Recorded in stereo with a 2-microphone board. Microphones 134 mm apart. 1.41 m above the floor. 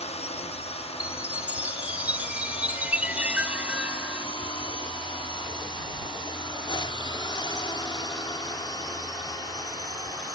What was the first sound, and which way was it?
A drone, 55° left (ahead or behind).